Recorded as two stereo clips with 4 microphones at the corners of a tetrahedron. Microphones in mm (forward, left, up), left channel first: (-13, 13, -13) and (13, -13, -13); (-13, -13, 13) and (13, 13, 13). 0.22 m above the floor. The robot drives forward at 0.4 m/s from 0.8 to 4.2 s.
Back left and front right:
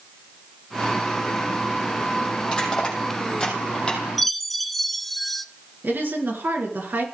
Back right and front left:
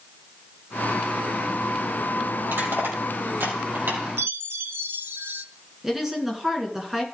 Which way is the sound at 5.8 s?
35° right.